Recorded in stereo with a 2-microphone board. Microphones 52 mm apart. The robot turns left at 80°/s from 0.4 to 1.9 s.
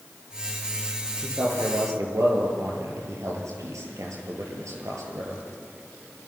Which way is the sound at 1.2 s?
45° right (ahead or behind).